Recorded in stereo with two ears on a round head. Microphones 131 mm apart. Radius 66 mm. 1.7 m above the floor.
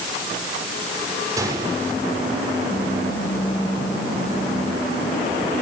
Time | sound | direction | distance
1.4 | a gunshot | 25° right (ahead or behind) | 7 m